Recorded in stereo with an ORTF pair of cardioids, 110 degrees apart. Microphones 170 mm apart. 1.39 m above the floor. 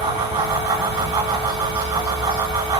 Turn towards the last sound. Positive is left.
turn(degrees=-35)